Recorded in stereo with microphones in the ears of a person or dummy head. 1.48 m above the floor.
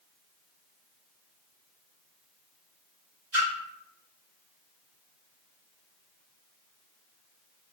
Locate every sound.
3.3 s a splash: 10° right (ahead or behind), 1.4 m